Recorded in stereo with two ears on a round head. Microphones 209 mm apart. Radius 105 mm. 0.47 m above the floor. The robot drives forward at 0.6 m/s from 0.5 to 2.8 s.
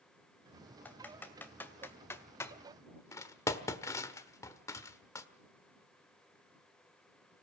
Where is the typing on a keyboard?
5° left (ahead or behind), 2.5 m; by 5.3 s 15° left (ahead or behind), 1.3 m.